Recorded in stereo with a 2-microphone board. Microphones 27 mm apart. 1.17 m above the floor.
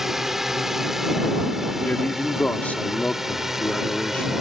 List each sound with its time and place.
0.0 s a drone: 10° right (ahead or behind)
1.8 s a man speaking: 70° left (ahead or behind)